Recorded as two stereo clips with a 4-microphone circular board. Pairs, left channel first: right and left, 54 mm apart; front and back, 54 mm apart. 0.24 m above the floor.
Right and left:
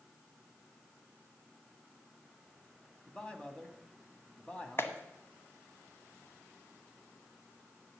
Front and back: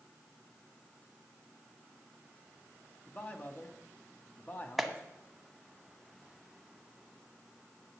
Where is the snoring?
I don't hear snoring.